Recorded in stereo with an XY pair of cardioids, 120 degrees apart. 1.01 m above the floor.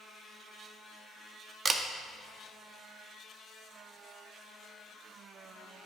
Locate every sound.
1.6 s a camera shutter: 25° right, 0.9 m